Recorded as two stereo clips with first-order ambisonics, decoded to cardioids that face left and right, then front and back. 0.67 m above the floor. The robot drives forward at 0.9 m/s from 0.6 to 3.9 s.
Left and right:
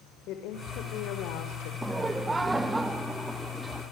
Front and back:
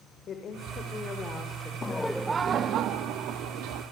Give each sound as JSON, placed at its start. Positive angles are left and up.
{"t": 0.3, "sound": "a woman speaking", "azimuth_deg": 55, "distance_m": 2.5}
{"t": 1.8, "sound": "laughter", "azimuth_deg": -15, "distance_m": 0.8}